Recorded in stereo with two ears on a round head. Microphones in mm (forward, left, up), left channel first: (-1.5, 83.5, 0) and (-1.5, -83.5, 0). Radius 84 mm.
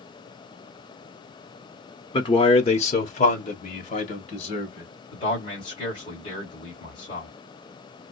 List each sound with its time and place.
2.1 s a man speaking: 25° left (ahead or behind), 0.7 m; by 4.9 s 40° left (ahead or behind), 1.9 m
5.1 s a man speaking: 30° left (ahead or behind), 2.5 m